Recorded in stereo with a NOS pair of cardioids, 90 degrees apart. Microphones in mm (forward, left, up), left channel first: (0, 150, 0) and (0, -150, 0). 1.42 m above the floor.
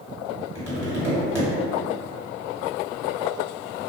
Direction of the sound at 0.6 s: 10° right.